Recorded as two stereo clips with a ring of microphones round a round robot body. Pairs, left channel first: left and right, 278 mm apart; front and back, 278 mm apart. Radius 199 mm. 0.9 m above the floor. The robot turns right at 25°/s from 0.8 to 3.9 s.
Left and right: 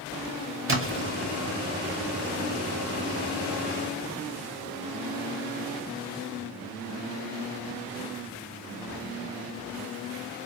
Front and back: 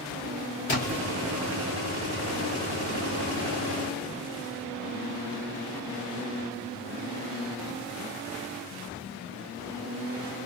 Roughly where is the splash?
Ahead right.